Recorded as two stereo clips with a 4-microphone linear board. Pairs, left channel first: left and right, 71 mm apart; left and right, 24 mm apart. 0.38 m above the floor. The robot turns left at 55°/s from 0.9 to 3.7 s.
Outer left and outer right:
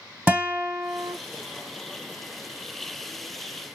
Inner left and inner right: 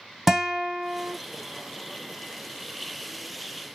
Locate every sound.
0.3 s a guitar: 20° right (ahead or behind), 0.9 m; by 1.1 s 35° right (ahead or behind), 0.9 m